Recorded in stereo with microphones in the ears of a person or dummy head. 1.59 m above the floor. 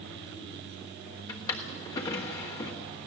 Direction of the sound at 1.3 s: 20° left (ahead or behind).